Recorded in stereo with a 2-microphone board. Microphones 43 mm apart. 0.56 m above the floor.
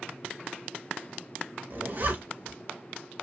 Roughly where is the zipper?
Right.